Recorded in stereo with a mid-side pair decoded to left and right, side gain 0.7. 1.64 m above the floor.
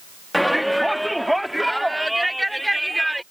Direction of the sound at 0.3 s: Straight ahead.